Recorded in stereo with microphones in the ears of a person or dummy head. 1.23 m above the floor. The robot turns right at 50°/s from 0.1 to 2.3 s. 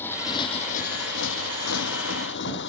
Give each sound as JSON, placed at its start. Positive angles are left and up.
{"t": 0.0, "sound": "a motorcycle", "side_deg": 15}